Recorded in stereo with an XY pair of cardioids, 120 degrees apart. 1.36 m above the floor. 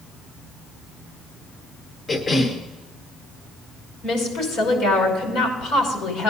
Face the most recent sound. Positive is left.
turn(degrees=70)